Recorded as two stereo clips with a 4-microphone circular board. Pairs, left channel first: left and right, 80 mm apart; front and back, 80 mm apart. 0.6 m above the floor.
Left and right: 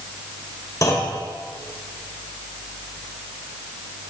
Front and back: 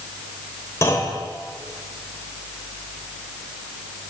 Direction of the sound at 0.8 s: 50° left.